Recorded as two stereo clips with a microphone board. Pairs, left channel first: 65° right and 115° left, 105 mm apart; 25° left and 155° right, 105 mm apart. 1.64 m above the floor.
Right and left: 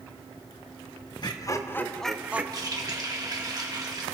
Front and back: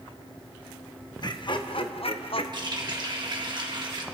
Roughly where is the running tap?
Behind.